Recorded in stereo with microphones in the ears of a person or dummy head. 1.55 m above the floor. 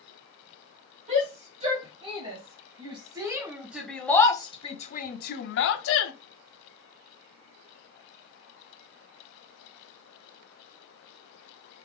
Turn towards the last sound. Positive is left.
turn(degrees=85)